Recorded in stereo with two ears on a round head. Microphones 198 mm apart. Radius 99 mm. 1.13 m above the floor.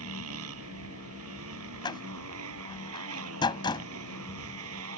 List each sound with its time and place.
0.0 s a motorcycle: 75° right (ahead or behind)
1.8 s a door slam: 20° left (ahead or behind)